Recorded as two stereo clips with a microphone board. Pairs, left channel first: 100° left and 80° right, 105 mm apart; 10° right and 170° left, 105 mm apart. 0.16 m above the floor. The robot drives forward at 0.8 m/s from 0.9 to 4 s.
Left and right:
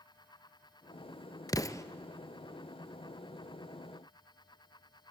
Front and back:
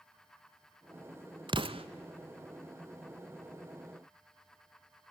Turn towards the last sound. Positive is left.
turn(degrees=175)